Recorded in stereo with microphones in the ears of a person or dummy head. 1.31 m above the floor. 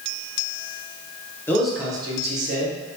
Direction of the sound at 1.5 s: 10° left (ahead or behind).